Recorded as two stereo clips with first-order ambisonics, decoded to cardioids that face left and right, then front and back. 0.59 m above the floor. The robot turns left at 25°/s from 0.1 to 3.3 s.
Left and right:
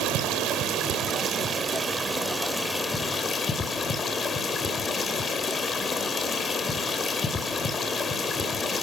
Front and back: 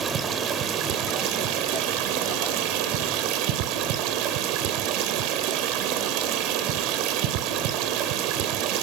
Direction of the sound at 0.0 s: 120° right.